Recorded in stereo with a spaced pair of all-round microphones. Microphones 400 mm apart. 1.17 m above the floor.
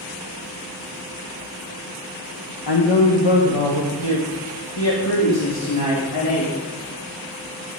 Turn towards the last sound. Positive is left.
turn(degrees=70)  # may be behind; listen again after turning